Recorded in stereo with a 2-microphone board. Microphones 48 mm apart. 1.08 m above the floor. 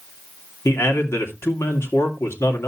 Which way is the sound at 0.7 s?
60° left (ahead or behind).